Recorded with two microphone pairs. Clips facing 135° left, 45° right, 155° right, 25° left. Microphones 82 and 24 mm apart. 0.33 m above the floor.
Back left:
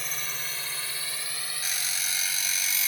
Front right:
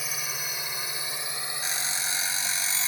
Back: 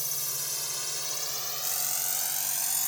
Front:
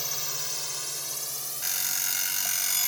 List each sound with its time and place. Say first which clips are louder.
0.0 s a drone: front right 1 dB, front 2 dB; 30° left; by 2.9 s 110° right
1.6 s an alarm clock: front right 2 dB, front 7 dB; 10° left